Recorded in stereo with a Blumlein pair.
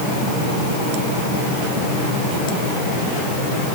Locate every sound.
Only background noise.